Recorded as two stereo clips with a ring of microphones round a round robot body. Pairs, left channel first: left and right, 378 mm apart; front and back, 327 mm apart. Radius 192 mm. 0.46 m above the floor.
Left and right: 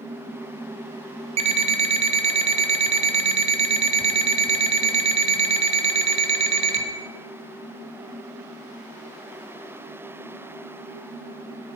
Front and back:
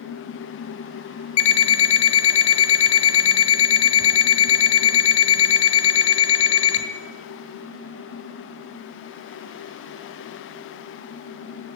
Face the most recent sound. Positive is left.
turn(degrees=-15)